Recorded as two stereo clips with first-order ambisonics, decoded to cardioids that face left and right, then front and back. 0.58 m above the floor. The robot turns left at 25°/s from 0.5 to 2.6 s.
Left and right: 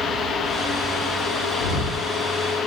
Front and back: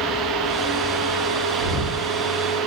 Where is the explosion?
80° left, 1.6 m; by 2.0 s 70° left, 1.6 m.